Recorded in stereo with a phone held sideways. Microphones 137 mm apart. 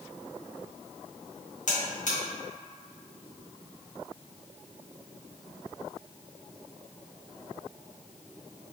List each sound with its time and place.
1.7 s a buzzer: 65° left (ahead or behind), 0.9 m